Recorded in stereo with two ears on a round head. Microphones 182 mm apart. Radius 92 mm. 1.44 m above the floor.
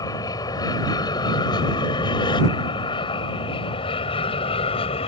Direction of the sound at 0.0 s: 15° left (ahead or behind).